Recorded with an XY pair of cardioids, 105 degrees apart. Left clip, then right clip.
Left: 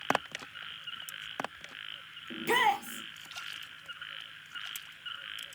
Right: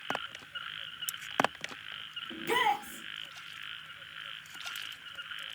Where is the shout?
40° left, 1.6 m.